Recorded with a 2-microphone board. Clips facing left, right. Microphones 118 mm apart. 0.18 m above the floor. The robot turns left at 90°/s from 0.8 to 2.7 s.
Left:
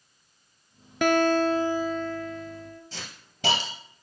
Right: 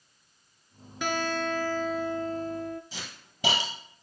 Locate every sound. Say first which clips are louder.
1.0 s a guitar: left 9 dB; 80° left, 0.6 m; by 2.8 s 70° right, 0.6 m
2.9 s a hiss: left 1 dB; 5° right (ahead or behind), 2.5 m